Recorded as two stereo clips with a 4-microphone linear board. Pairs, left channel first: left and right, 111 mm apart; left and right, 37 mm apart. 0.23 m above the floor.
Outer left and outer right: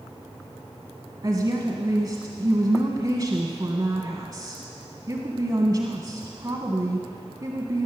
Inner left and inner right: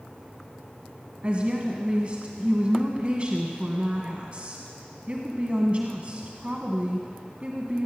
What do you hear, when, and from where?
1.2 s a woman speaking: 35° right (ahead or behind), 1.4 m